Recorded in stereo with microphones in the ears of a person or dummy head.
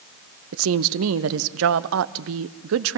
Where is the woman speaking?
80° right, 0.7 m.